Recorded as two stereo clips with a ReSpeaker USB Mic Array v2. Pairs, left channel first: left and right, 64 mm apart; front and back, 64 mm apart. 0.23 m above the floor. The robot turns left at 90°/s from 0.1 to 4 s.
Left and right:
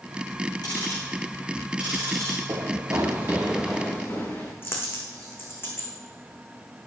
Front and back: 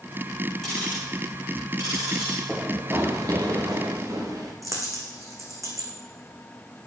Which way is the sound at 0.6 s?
85° left.